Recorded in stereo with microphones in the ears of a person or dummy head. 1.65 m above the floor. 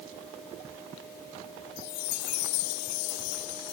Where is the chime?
75° left (ahead or behind).